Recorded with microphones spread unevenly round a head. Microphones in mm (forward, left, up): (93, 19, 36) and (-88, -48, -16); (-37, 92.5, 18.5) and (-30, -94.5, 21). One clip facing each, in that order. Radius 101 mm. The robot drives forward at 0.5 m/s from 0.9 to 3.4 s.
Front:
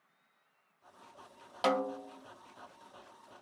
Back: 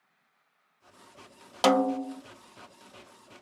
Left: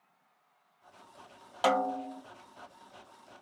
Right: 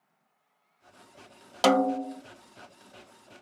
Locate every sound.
1.6 s a snare drum: 130° right, 0.5 m; by 2.2 s 150° right, 0.7 m